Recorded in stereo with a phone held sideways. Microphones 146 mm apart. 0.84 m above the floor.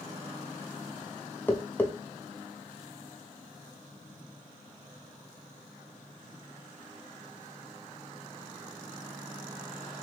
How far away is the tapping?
About 0.5 m.